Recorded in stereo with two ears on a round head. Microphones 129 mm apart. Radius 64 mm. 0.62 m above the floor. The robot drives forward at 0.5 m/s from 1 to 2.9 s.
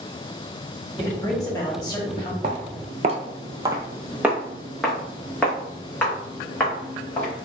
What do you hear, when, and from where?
1.0 s a man speaking: 25° left (ahead or behind), 1.6 m; by 2.3 s 30° left (ahead or behind), 1.3 m
2.4 s footsteps: 45° right (ahead or behind), 1.0 m; by 7.3 s 15° left (ahead or behind), 3 m